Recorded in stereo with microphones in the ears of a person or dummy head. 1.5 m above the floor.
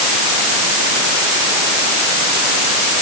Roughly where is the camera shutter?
No camera shutter in this recording.